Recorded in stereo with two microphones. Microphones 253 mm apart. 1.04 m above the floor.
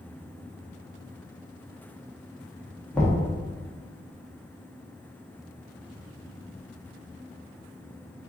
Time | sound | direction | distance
2.9 | knocking | 5° left (ahead or behind) | 1.3 m